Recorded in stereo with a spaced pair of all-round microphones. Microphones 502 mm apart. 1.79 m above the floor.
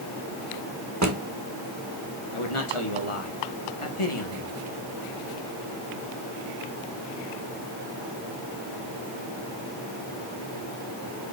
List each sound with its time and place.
1.0 s a drawer: 30° right (ahead or behind), 1.3 m
2.3 s a man speaking: 70° left (ahead or behind), 1.8 m